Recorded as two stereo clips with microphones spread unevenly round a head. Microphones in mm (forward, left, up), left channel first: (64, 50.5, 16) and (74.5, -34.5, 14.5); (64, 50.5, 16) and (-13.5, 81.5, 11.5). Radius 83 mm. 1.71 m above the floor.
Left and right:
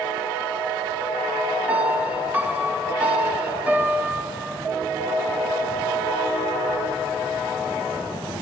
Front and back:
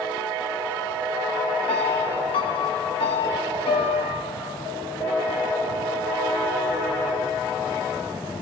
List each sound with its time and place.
1.7 s a piano: 10° right, 3 m